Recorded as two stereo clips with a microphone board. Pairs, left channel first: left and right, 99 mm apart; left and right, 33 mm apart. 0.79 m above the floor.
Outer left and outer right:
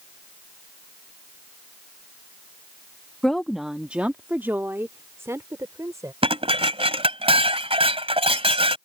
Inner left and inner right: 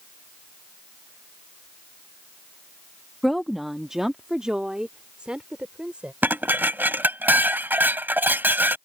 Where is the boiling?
I don't hear boiling.